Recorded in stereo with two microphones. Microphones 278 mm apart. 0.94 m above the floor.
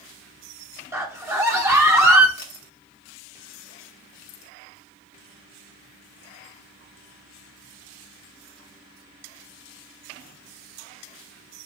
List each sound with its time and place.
0.9 s a scream: 10° right (ahead or behind), 0.6 m
2.4 s a camera shutter: 65° left (ahead or behind), 0.9 m